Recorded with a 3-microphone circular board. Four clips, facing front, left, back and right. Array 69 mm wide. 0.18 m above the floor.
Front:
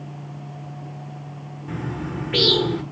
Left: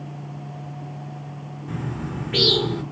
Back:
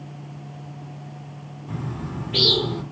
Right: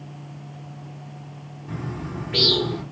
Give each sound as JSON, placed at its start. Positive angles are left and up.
{"t": 1.7, "sound": "a bird", "azimuth_deg": 10, "distance_m": 1.0}